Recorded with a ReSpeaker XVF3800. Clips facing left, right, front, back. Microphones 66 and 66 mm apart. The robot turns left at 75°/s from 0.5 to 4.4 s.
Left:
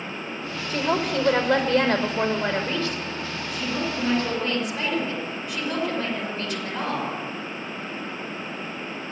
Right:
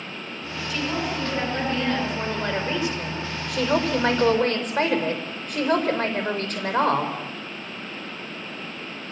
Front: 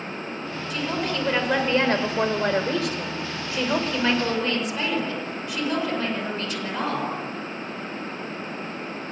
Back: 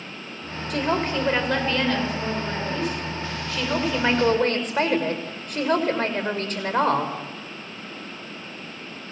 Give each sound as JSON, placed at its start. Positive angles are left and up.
{"t": 0.7, "sound": "a woman speaking", "azimuth_deg": 145, "distance_m": 6.5}